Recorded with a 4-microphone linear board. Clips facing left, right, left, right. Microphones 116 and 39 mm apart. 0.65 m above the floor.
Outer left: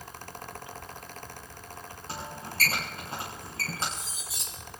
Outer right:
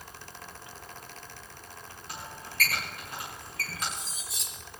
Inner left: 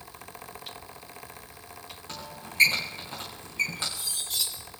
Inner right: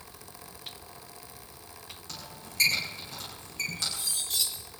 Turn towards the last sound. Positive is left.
turn(degrees=0)  # may be behind; listen again after turning